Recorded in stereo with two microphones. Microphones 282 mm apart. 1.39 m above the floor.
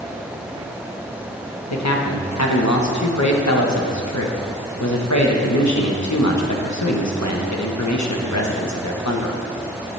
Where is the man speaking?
80° left, 1.4 m.